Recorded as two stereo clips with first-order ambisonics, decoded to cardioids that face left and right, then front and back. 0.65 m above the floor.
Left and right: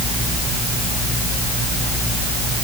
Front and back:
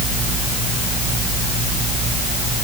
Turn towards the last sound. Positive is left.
No sound to turn to.